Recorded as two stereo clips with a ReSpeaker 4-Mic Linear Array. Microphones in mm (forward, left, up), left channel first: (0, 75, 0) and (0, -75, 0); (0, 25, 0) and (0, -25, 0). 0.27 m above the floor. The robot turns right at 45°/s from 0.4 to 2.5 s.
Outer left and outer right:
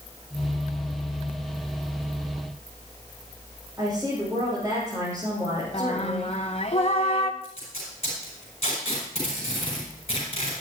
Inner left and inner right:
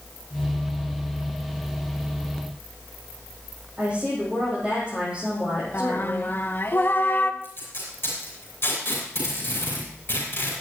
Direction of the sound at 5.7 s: 45° left (ahead or behind).